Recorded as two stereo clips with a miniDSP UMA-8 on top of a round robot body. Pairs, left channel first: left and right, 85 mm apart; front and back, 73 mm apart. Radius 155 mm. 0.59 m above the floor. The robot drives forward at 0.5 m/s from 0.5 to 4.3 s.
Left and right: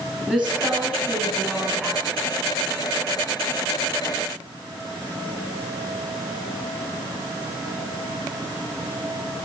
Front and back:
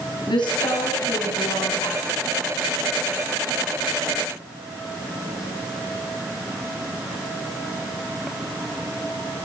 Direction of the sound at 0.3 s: 10° right.